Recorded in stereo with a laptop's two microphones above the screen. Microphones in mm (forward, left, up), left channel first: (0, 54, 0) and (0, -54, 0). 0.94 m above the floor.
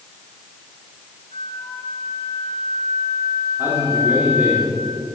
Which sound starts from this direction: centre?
A man speaking, at 3.6 s.